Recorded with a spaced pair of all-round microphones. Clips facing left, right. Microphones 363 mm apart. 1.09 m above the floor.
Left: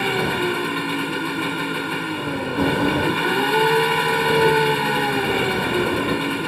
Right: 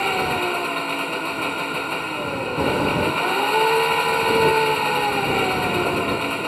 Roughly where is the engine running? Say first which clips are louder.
Left 2 dB; left.